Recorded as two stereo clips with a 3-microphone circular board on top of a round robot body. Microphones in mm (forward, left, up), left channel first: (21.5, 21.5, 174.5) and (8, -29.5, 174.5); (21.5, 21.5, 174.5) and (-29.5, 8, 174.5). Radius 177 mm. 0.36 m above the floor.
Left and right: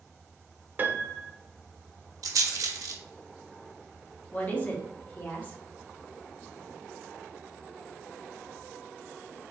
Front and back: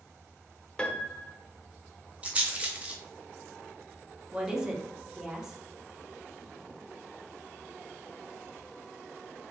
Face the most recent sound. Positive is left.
turn(degrees=120)